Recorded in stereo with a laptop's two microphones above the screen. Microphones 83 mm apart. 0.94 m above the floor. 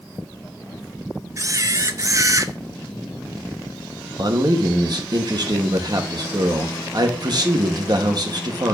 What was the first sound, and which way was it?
A camera shutter, 40° right (ahead or behind).